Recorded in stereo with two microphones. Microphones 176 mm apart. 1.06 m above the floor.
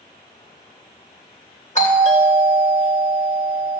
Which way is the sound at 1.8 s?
40° left (ahead or behind).